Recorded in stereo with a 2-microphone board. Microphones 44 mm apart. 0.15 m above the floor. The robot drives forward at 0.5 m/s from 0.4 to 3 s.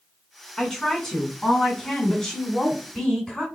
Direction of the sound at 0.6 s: 10° left (ahead or behind).